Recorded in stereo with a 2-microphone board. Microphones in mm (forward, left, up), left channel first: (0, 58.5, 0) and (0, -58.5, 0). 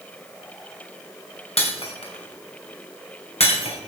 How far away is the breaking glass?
About 3 m.